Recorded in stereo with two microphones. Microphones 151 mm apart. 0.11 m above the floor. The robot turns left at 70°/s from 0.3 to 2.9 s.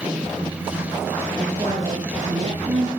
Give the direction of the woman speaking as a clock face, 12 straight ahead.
12 o'clock.